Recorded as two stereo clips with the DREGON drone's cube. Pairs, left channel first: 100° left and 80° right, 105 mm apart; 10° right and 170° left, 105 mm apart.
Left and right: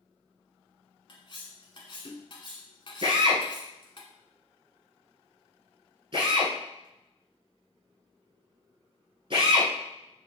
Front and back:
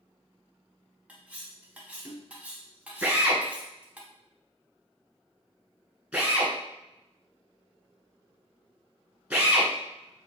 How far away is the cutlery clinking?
About 0.9 m.